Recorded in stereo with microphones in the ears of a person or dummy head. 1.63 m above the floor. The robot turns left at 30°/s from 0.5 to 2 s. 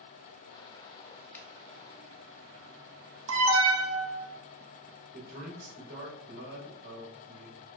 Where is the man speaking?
55° right (ahead or behind), 1.7 m.